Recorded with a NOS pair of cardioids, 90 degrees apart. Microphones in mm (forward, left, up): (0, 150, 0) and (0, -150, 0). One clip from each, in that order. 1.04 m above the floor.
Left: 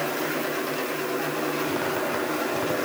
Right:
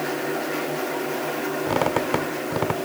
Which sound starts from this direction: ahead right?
A squeak, at 1.7 s.